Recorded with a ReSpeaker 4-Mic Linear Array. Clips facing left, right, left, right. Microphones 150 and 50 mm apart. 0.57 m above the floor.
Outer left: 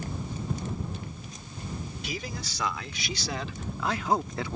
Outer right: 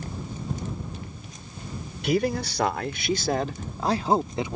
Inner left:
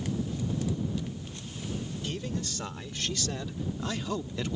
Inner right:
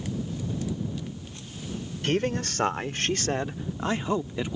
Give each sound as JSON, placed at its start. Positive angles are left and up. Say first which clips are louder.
{"t": 2.0, "sound": "a man speaking", "louder": "outer right 17 dB, inner right 13 dB", "side_deg": -65}